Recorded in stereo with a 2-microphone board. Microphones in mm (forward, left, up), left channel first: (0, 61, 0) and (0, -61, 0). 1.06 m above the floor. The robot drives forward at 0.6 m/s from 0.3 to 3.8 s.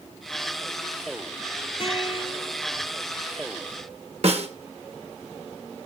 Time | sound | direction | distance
1.8 | a guitar | 45° left (ahead or behind) | 3.5 m
4.2 | a snare drum | 55° right (ahead or behind) | 1.4 m